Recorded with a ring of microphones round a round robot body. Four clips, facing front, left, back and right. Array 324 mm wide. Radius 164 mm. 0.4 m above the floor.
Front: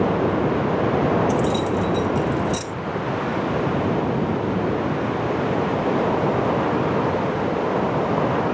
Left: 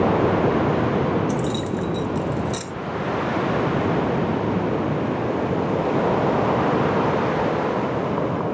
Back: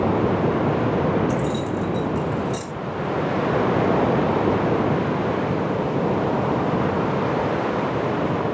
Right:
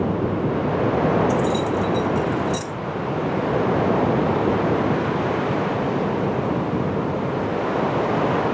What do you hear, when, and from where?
1.3 s keys jangling: 35° left, 1.6 m